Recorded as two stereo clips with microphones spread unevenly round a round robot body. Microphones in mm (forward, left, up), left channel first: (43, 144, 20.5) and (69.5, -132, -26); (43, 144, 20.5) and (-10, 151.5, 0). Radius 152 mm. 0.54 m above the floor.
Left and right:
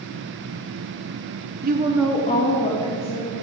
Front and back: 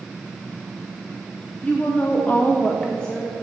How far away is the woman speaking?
About 0.8 m.